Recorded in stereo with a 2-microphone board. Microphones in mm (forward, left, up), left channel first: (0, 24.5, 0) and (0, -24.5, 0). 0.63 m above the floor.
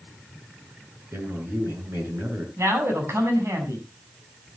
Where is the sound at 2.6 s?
70° right (ahead or behind), 6 m.